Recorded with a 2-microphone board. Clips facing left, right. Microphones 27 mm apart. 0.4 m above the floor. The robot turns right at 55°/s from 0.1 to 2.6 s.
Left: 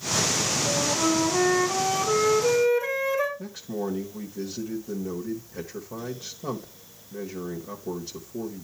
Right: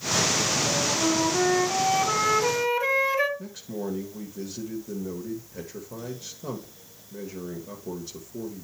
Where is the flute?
130° left, 3 m; by 3.3 s 125° right, 3 m.